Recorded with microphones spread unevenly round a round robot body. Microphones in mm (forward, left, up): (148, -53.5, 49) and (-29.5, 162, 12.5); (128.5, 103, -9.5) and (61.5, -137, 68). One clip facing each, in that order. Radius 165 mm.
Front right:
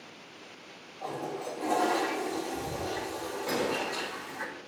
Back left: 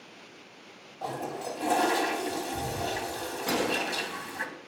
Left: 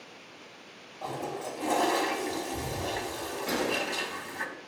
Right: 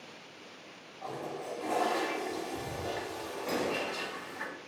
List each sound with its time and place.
1.0 s a toilet flushing: 120° left, 0.6 m
3.5 s a gunshot: 125° left, 0.7 m